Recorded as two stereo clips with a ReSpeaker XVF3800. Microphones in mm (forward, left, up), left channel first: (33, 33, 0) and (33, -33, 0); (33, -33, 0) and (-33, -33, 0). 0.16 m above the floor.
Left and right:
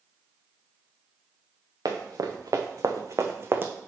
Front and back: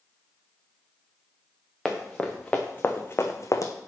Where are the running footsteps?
85° right, 1.3 m; by 3.7 s 30° right, 0.8 m.